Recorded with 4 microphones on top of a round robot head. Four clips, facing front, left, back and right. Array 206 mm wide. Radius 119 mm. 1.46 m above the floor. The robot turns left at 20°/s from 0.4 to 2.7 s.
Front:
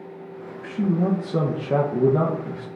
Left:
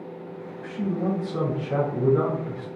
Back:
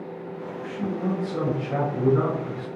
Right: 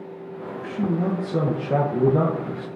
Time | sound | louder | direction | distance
0.6 | a man speaking | right 2 dB, front 6 dB | 20° right | 0.5 m